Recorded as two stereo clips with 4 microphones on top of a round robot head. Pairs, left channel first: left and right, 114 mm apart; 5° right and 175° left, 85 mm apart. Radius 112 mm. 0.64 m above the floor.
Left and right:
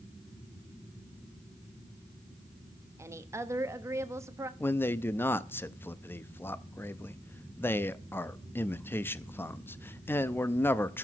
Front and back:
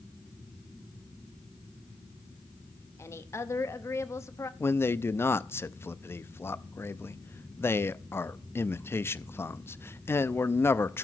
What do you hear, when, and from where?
3.0 s a woman speaking: 40° right, 0.9 m
4.6 s a man speaking: 35° left, 0.6 m